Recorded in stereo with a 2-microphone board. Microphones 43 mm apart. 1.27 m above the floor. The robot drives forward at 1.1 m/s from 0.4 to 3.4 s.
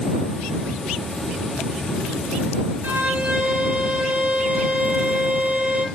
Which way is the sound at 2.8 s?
45° right (ahead or behind).